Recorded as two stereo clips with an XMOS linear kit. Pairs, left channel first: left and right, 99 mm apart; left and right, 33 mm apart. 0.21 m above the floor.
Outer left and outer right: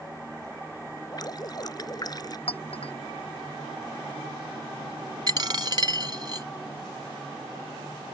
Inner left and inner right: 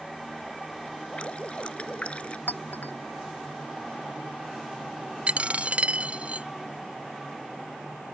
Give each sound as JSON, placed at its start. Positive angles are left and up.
{"t": 1.1, "sound": "dripping", "side_deg": 45}
{"t": 2.5, "sound": "a clink", "side_deg": 80}
{"t": 5.3, "sound": "a dropped coin", "side_deg": -50}